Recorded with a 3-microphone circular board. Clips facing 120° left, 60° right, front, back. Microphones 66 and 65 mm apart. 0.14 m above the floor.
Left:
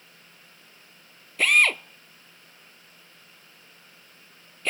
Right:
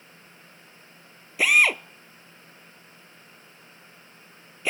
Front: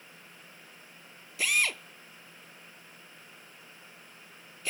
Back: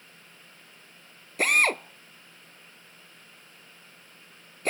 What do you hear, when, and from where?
1.4 s a drill: 145° right